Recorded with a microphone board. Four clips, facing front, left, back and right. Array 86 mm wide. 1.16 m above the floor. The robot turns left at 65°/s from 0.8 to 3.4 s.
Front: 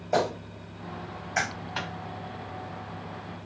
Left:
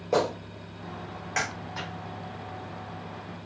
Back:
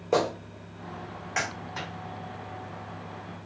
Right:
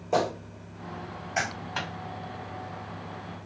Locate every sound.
0.1 s a clap: 160° left, 1.5 m; by 1.5 s 115° left, 1.5 m
1.8 s a microwave: 45° right, 0.6 m; by 1.9 s 55° right, 0.6 m